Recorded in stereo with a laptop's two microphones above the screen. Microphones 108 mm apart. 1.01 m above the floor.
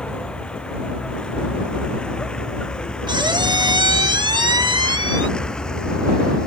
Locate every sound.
0.0 s a vehicle: 10° left (ahead or behind); by 6.5 s 5° left (ahead or behind)
3.1 s a squeak: 45° right (ahead or behind)